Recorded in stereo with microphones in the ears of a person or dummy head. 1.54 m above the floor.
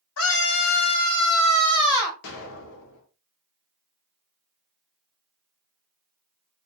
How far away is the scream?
About 0.7 m.